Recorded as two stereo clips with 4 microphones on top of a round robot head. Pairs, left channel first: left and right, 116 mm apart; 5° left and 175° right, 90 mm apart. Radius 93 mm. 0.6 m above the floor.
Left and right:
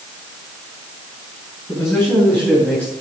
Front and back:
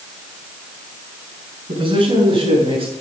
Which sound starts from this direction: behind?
A man speaking, at 1.7 s.